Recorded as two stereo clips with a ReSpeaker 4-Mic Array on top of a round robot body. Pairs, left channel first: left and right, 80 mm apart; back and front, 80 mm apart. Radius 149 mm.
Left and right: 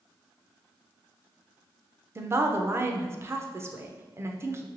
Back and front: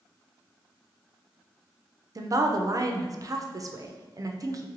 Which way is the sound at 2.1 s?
35° right.